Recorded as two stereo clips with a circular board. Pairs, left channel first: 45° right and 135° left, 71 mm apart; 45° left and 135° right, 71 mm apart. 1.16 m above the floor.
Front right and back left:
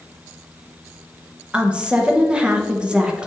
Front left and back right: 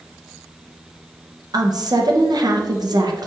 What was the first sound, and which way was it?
A woman speaking, 150° right.